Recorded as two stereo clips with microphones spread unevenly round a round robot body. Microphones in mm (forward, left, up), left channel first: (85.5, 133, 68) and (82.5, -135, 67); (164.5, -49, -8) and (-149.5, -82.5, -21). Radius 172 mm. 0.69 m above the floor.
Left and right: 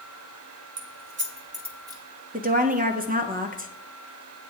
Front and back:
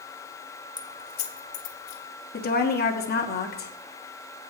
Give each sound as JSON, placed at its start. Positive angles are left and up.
{"t": 0.8, "sound": "keys jangling", "azimuth_deg": -75, "distance_m": 1.2}
{"t": 2.3, "sound": "a woman speaking", "azimuth_deg": -45, "distance_m": 1.4}